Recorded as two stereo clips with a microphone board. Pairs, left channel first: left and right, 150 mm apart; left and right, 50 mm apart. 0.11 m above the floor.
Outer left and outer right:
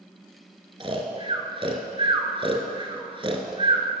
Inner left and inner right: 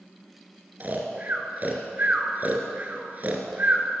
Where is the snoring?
35° right (ahead or behind), 1.3 m.